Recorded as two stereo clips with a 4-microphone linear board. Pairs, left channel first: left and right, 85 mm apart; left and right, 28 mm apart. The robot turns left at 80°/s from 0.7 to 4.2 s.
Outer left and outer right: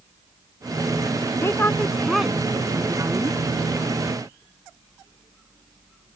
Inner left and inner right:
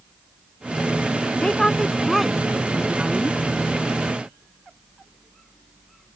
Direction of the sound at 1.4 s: 60° left.